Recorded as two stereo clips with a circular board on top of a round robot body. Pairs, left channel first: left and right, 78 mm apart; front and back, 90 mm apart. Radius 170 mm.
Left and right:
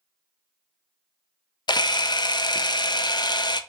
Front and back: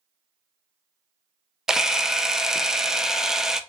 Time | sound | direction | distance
1.7 | a camera shutter | 95° left | 0.7 m